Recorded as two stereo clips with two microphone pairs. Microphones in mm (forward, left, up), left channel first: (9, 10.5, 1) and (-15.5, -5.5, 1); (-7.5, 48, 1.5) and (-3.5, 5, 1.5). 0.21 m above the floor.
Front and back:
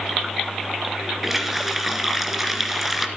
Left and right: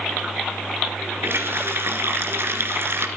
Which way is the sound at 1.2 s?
65° right.